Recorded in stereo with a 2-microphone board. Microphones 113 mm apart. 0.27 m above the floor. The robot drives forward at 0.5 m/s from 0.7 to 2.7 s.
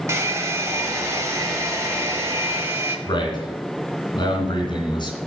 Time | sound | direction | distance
0.1 | a hair dryer | 25° right (ahead or behind) | 1.2 m
3.1 | a man speaking | 45° left (ahead or behind) | 2.5 m